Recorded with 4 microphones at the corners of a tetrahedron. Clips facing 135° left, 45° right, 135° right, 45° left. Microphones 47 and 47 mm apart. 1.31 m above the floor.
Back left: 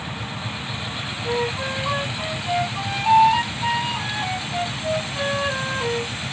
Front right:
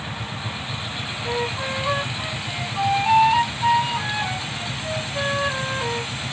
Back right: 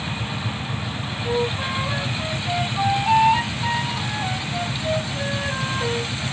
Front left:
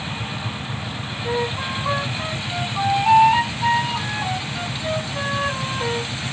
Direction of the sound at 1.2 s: 40° left.